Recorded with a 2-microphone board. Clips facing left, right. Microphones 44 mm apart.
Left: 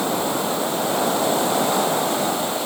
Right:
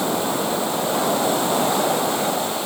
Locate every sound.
Only background noise.